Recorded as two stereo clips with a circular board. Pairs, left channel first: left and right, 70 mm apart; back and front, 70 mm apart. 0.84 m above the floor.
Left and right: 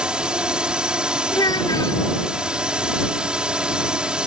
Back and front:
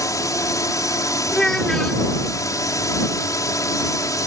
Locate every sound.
0.0 s a drone: 165° right
1.3 s a child speaking: 100° left